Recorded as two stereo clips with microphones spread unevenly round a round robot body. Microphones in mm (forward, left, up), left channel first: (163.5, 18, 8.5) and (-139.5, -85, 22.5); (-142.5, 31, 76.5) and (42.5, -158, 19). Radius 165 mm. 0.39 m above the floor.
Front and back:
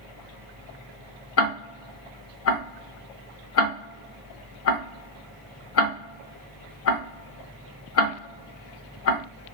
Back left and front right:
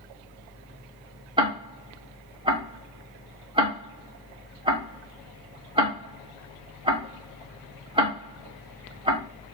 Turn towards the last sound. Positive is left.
turn(degrees=5)